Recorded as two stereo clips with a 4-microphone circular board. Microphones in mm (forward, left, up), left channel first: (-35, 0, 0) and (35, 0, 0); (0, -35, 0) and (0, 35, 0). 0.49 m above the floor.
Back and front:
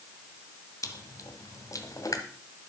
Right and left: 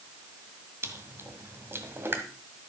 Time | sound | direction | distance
0.8 | chewing | 145° left | 1.6 m